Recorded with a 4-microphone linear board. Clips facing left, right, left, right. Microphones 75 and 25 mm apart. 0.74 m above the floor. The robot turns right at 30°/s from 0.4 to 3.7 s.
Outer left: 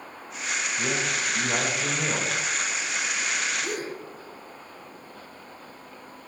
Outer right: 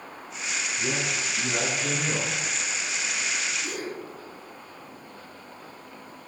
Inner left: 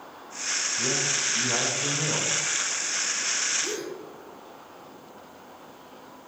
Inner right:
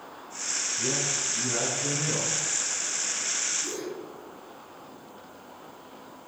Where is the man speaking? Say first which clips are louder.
Outer left 1 dB, inner left 2 dB; 65° left, 3 m; by 2.4 s 110° left, 3 m.